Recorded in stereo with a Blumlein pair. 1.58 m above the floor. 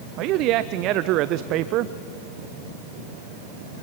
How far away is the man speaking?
About 0.5 m.